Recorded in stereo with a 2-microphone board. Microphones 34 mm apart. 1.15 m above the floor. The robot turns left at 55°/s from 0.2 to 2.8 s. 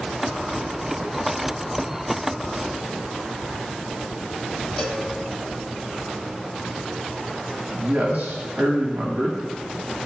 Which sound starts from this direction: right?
A man speaking, at 7.7 s.